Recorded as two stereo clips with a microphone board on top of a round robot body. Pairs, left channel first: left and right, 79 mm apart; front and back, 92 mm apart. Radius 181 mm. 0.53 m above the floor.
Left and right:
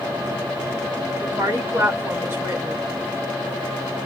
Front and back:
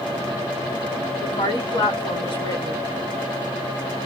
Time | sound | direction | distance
1.2 | a woman speaking | 40° right | 1.5 m